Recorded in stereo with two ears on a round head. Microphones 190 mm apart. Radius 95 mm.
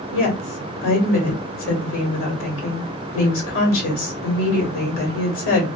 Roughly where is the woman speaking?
Left.